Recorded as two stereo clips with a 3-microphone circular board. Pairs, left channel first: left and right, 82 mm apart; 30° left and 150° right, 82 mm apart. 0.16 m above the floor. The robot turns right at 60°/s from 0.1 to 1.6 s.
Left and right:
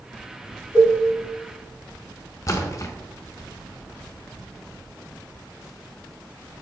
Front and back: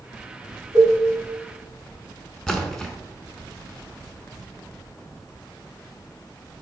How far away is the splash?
About 0.6 m.